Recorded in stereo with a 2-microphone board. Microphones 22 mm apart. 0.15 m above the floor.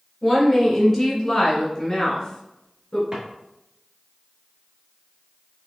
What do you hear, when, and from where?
0.2 s a woman speaking: 5° left (ahead or behind), 1.9 m; by 3.0 s 30° left (ahead or behind), 1.4 m
3.1 s a drawer: 35° right (ahead or behind), 1.4 m